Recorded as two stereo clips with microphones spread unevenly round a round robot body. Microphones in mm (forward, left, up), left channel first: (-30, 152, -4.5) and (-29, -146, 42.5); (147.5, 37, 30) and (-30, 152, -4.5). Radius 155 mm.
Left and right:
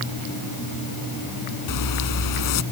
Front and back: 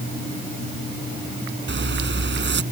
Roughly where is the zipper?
Left.